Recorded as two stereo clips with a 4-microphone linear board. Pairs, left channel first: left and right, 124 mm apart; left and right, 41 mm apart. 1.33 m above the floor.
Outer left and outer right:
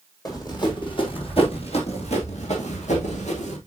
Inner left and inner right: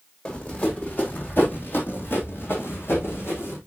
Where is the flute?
No flute in this recording.